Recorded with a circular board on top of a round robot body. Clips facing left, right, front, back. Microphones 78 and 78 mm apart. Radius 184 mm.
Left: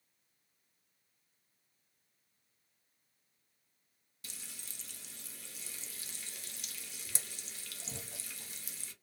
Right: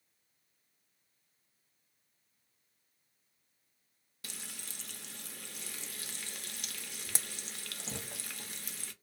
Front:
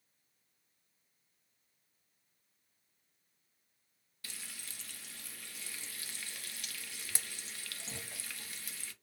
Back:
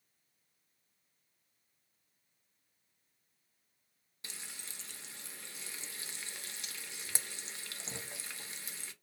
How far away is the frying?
About 0.6 m.